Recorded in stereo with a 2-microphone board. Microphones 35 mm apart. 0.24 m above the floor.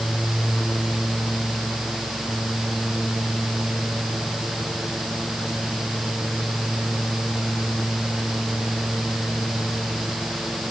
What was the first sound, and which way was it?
Only background noise.